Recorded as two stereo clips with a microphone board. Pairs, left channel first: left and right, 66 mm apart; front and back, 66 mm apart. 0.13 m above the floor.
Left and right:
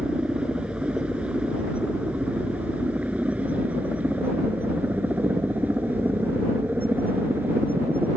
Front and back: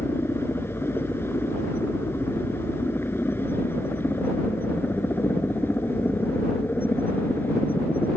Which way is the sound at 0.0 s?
25° right.